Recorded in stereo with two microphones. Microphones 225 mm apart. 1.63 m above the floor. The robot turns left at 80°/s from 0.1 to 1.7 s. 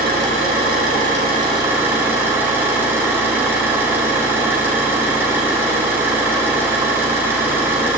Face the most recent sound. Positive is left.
turn(degrees=-170)